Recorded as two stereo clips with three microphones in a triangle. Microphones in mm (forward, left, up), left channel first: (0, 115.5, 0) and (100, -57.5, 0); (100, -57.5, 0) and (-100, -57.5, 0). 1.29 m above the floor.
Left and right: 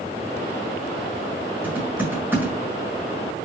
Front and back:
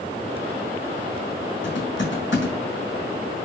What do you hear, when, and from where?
1.6 s typing on a keyboard: 20° left, 6.5 m